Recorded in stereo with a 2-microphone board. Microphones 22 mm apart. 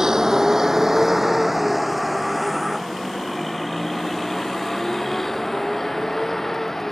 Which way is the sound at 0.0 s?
30° right (ahead or behind).